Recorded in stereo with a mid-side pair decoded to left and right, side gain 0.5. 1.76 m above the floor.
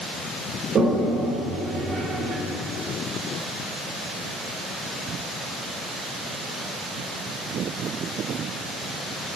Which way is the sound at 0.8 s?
55° right.